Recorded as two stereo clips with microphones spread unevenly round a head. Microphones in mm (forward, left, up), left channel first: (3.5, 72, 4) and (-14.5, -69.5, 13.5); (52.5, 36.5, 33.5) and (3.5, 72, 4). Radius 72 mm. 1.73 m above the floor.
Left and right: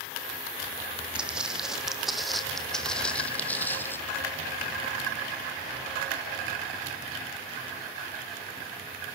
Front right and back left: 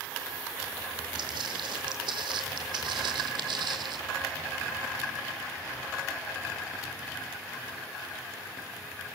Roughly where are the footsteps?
Behind.